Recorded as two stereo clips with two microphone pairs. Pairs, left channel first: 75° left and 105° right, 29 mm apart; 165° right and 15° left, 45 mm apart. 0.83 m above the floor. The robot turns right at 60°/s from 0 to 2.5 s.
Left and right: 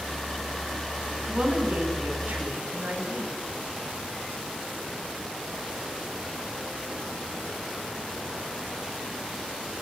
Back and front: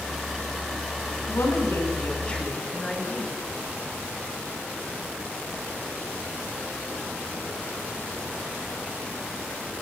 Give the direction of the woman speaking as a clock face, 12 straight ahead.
5 o'clock.